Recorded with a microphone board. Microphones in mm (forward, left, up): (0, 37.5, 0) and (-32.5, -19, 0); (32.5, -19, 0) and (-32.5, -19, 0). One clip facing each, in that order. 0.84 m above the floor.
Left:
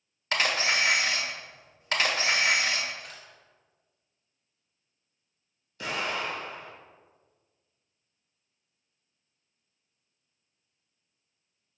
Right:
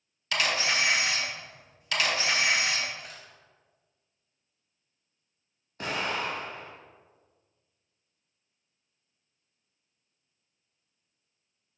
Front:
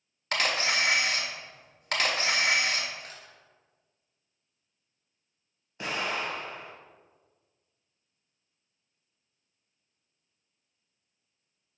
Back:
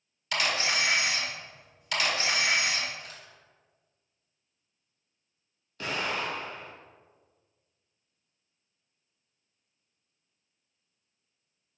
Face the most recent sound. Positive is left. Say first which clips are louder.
# right 1 dB, even
turn(degrees=-70)